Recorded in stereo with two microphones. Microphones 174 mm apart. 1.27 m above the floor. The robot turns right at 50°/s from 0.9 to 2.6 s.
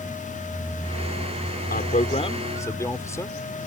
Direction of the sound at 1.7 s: 120° left.